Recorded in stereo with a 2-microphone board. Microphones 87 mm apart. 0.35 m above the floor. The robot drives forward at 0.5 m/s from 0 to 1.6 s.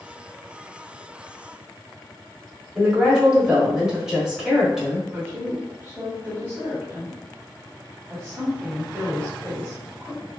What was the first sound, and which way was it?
A woman speaking, 5° right (ahead or behind).